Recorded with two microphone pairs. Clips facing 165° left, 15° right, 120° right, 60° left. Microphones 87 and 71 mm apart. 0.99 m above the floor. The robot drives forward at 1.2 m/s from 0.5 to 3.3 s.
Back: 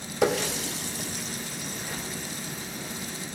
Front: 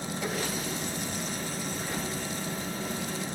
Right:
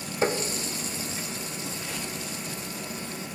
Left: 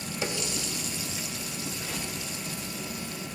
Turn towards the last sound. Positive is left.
turn(degrees=180)